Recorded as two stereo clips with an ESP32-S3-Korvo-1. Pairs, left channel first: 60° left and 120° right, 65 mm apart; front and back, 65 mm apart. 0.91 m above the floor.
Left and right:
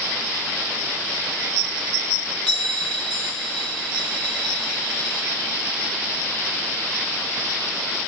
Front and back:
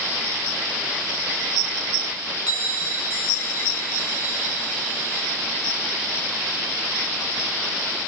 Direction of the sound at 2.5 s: 15° right.